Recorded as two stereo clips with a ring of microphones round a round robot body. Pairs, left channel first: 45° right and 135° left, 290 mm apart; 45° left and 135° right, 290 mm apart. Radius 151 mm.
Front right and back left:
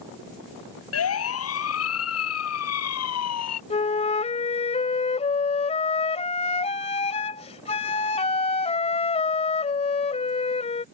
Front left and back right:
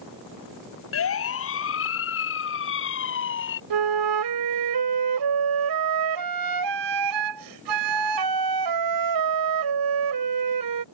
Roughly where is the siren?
Ahead.